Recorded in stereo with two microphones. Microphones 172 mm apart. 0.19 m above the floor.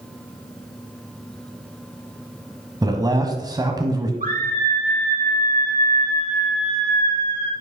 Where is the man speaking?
20° right (ahead or behind), 1.0 m.